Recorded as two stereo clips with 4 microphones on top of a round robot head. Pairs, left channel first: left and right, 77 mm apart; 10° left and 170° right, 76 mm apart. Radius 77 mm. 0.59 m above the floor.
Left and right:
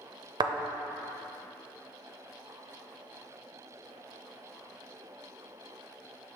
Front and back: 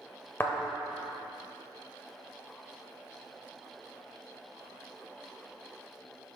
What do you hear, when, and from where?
0.4 s a thud: 60° right, 0.6 m